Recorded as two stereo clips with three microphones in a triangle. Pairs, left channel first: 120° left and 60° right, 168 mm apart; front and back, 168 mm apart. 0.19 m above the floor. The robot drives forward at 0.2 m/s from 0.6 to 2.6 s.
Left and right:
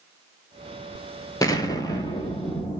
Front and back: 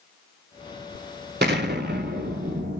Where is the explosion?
175° right, 0.5 m.